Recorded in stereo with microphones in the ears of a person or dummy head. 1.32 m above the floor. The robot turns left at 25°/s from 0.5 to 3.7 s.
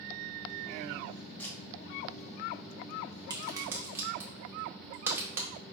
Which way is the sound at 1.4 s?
15° left (ahead or behind).